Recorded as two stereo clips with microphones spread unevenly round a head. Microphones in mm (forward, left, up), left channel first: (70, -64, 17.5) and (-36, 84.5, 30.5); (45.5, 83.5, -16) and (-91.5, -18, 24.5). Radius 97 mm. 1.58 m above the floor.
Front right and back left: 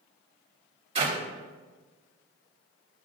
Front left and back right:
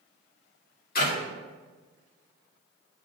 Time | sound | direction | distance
0.9 | a clap | 70° left | 3.5 m